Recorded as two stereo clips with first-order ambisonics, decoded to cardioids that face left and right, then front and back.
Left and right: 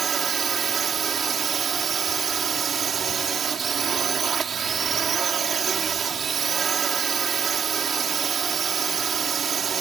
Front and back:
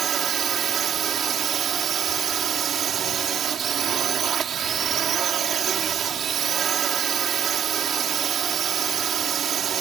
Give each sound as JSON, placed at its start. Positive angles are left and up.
{"t": 0.0, "sound": "a drone", "azimuth_deg": -140}